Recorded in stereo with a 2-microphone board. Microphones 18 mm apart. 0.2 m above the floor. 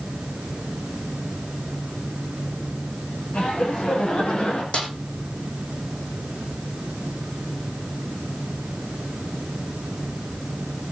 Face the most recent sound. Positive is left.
turn(degrees=70)  # may be behind; listen again after turning